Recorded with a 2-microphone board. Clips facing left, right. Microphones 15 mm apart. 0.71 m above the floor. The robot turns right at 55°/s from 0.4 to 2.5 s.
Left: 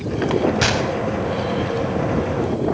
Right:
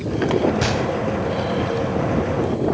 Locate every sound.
0.6 s a gunshot: 20° left (ahead or behind), 1.1 m; by 0.9 s 40° left (ahead or behind), 1.1 m